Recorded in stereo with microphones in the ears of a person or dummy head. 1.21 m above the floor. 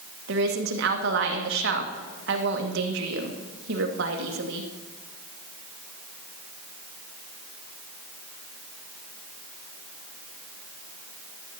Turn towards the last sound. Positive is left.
turn(degrees=-70)  # may be behind; listen again after turning